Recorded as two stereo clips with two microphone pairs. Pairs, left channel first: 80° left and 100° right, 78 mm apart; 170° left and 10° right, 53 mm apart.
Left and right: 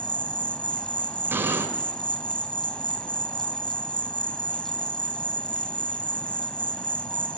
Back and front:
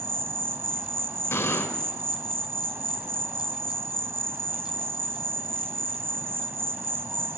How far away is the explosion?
About 3.5 m.